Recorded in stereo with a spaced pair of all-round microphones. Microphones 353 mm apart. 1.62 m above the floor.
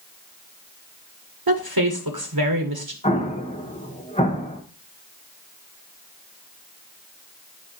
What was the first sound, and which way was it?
A woman speaking, 85° right.